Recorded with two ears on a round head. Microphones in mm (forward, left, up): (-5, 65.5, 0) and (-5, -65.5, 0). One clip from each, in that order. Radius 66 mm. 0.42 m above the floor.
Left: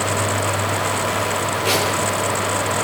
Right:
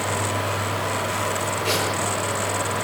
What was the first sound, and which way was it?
A zipper, 5° left (ahead or behind).